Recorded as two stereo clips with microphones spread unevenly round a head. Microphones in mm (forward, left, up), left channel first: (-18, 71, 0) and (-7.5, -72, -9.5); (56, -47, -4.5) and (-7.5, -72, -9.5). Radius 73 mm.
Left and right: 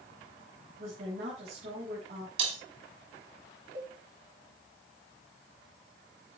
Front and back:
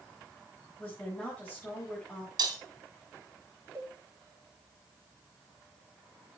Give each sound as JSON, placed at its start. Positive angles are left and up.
{"t": 0.8, "sound": "a woman speaking", "azimuth_deg": -55, "distance_m": 5.0}
{"t": 2.4, "sound": "breaking glass", "azimuth_deg": -140, "distance_m": 2.5}
{"t": 3.8, "sound": "a cowbell", "azimuth_deg": -110, "distance_m": 3.0}